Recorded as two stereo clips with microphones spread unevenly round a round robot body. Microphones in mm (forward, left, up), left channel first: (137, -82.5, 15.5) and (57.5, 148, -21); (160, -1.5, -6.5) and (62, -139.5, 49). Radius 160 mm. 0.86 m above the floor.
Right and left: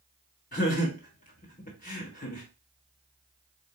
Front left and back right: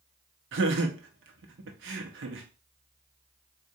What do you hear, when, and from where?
0.5 s laughter: 140° right, 0.9 m